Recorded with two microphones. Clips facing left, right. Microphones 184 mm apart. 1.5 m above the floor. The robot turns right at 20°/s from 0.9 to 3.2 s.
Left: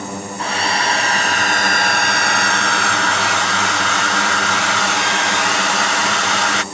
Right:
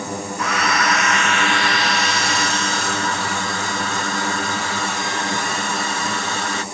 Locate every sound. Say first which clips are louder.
0.4 s a hair dryer: even; 30° left; by 6.6 s 75° left